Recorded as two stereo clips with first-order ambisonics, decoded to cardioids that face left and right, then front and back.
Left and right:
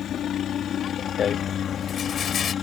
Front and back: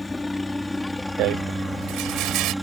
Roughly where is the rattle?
Behind left.